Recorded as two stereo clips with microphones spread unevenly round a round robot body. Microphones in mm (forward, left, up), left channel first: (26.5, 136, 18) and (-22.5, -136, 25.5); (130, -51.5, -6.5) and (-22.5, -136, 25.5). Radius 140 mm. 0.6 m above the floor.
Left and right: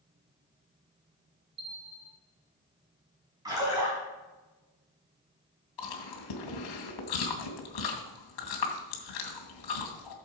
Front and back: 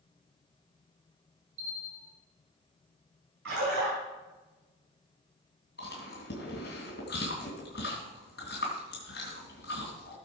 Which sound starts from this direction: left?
Chewing, at 5.8 s.